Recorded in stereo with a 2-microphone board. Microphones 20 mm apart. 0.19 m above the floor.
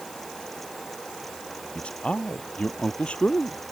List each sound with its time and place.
1.8 s a man speaking: 55° left (ahead or behind)